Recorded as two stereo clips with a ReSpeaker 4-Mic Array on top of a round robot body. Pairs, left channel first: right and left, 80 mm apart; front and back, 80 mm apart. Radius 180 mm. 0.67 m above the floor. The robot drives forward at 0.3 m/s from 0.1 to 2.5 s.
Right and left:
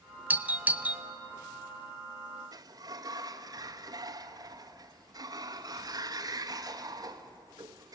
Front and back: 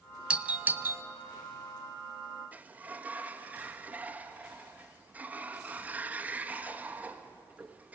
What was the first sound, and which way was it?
A doorbell, 125° left.